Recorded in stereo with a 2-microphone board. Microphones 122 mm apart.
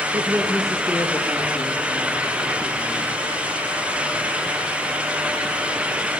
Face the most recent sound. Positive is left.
turn(degrees=45)  # may be behind; listen again after turning